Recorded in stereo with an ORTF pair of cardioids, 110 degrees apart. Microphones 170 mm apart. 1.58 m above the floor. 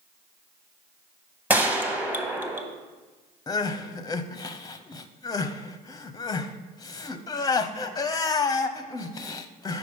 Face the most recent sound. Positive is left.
turn(degrees=25)